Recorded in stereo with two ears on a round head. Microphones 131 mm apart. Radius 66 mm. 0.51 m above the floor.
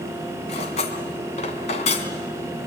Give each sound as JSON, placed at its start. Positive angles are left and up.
{"t": 0.5, "sound": "cutlery clinking", "side_deg": 50, "distance_m": 2.5}